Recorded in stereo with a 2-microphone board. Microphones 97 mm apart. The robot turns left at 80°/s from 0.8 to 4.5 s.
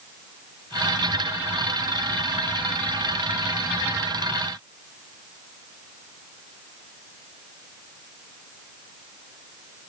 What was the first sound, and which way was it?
Only background noise.